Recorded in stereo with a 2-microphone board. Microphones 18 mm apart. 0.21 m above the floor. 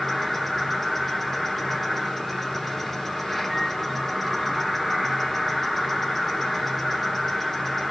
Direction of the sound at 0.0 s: 10° left (ahead or behind).